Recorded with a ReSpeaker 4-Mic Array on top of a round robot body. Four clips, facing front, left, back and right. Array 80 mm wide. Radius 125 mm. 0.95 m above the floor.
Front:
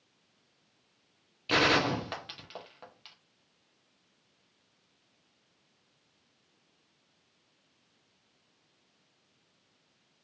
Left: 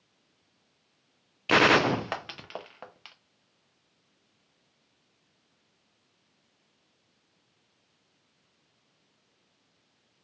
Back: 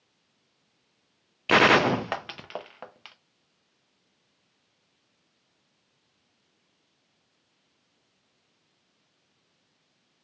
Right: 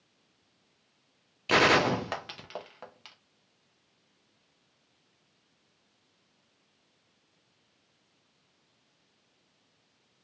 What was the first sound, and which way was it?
A gunshot, 165° left.